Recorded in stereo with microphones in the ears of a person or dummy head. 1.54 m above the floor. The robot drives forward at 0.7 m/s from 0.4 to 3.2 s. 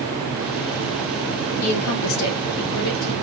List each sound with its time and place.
1.6 s a woman speaking: 80° left, 1.2 m; by 3.1 s 55° left (ahead or behind), 1.5 m